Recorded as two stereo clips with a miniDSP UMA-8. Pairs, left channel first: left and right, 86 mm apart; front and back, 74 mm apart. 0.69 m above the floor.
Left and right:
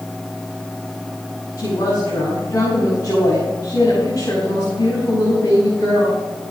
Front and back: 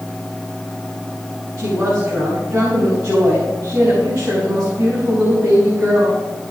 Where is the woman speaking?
140° left, 5 m.